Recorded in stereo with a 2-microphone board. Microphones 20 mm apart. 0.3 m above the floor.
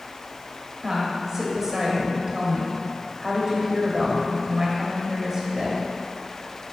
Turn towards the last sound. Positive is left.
turn(degrees=-20)  # may be behind; listen again after turning